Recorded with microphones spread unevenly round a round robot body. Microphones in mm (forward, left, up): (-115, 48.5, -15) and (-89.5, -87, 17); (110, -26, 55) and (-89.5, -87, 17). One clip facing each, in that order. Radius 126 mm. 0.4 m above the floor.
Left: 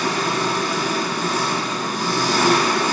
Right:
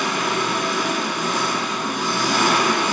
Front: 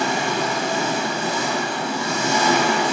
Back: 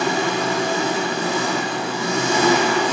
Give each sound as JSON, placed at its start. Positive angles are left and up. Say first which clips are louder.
{"t": 0.0, "sound": "an engine running", "louder": "left 1 dB, back 2 dB", "azimuth_deg": 155, "distance_m": 3.0}